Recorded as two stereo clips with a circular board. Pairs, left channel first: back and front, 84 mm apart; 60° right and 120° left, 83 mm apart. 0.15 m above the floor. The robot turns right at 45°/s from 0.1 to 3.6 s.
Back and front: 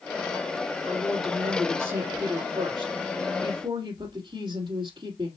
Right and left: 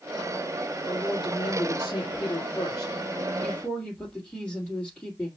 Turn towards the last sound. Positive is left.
turn(degrees=25)